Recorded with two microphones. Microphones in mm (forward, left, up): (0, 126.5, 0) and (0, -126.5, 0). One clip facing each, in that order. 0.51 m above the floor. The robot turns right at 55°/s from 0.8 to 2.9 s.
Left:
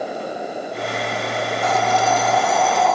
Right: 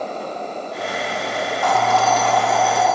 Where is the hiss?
25° left (ahead or behind), 0.6 m; by 3.0 s 5° right (ahead or behind), 0.6 m.